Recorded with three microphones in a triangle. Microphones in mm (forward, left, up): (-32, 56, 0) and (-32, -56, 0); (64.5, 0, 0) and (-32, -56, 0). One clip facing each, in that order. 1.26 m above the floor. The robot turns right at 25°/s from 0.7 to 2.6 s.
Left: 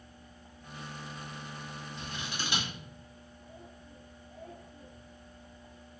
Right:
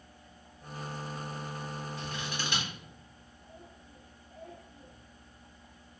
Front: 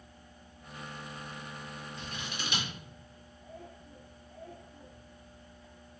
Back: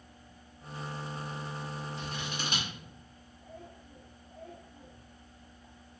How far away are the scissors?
About 1.5 m.